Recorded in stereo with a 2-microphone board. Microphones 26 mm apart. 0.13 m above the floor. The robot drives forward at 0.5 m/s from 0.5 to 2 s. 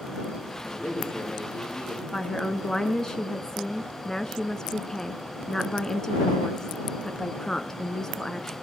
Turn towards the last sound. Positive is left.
turn(degrees=25)  # may be behind; listen again after turning